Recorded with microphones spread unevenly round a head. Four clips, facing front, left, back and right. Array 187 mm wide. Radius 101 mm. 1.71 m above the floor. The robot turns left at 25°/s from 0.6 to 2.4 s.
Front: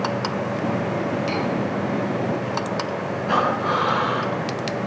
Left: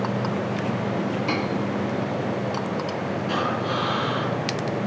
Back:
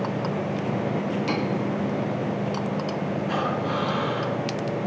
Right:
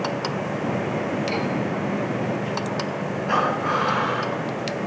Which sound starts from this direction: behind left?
Cutlery clinking, at 1.3 s.